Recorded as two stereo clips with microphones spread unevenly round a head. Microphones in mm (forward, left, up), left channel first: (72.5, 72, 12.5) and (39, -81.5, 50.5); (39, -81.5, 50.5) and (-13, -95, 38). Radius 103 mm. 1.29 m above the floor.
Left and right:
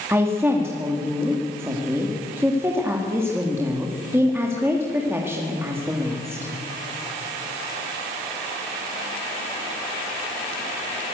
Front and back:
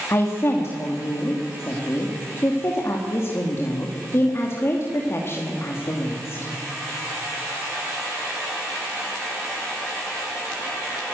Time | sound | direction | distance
0.1 | a woman speaking | 25° right | 2.5 m